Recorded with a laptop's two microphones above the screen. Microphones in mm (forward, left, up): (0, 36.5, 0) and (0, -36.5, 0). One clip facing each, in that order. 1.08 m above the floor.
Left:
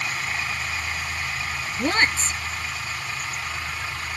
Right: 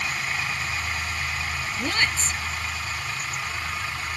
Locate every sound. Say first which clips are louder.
1.8 s a woman speaking: left 5 dB; 35° left (ahead or behind)